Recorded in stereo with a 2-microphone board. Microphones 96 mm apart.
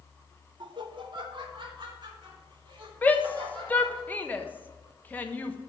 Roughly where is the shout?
Centre.